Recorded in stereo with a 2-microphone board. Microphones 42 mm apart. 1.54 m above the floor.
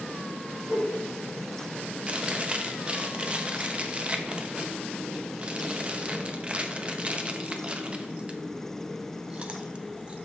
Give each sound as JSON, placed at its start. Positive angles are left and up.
{"t": 0.7, "sound": "a whoosh", "side_deg": -35, "distance_m": 3.0}
{"t": 2.1, "sound": "chewing", "side_deg": -25, "distance_m": 0.8}